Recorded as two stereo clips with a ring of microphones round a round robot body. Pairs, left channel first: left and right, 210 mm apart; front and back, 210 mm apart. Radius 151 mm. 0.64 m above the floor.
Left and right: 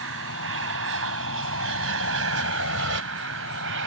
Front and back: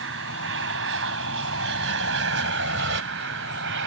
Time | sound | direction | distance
0.0 | an aircraft | 130° right | ?